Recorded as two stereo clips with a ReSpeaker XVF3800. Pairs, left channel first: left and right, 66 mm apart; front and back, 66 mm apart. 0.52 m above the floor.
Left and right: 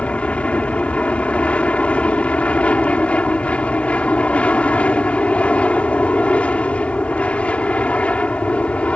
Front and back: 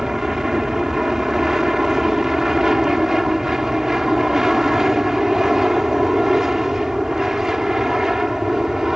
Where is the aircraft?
110° left.